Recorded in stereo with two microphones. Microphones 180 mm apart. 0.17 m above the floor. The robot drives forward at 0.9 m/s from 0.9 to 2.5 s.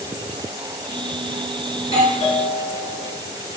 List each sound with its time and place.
1.8 s a doorbell: 30° left (ahead or behind), 4.5 m; by 3.2 s 35° left (ahead or behind), 4 m